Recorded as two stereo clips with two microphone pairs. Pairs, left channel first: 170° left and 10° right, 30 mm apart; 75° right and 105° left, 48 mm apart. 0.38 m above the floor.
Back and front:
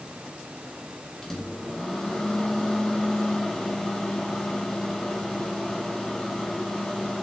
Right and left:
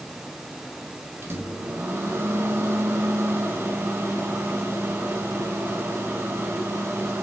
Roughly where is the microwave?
Left.